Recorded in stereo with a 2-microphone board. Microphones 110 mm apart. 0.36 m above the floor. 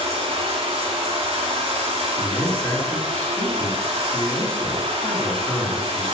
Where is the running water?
60° right (ahead or behind), 4.5 m.